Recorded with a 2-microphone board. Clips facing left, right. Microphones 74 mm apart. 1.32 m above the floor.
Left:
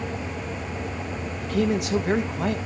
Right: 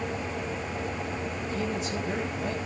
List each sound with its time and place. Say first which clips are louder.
1.4 s a man speaking: left 10 dB; 75° left (ahead or behind), 1.9 m